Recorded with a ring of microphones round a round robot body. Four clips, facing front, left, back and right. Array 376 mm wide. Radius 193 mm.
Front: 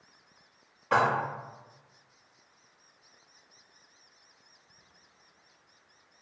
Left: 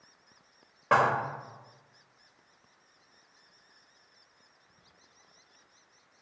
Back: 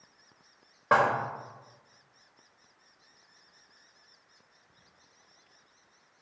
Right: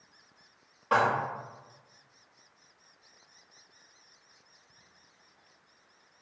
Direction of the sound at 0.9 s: 150° left.